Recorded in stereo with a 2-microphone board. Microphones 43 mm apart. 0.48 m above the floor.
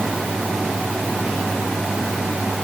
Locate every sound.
Only background noise.